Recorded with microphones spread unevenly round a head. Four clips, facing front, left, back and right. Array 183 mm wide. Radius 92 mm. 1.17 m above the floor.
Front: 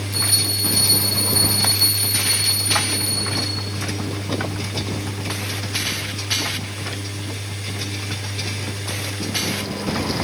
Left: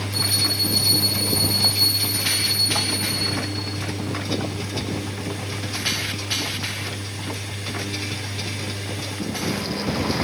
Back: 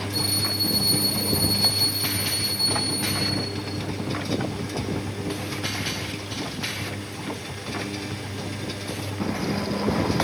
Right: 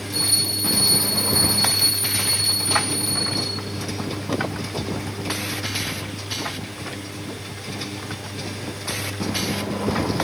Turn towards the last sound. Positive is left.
turn(degrees=-50)